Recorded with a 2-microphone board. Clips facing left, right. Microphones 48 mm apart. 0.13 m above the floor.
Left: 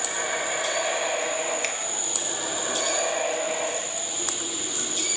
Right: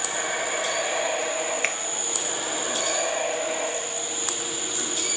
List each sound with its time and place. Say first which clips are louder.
1.6 s a finger snap: right 3 dB; 30° right (ahead or behind), 3 m